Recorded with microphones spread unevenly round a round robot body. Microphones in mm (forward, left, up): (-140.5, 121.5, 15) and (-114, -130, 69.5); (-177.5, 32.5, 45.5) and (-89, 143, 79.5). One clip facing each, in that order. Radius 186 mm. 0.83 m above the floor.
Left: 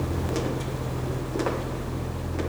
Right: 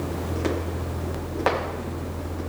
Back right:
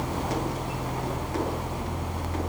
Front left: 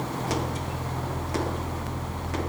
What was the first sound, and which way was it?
Only background noise.